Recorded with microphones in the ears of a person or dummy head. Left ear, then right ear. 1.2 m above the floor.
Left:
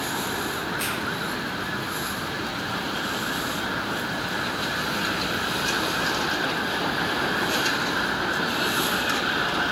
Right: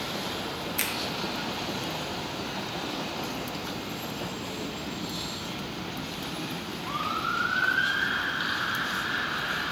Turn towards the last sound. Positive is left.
turn(degrees=-60)  # may be behind; listen again after turning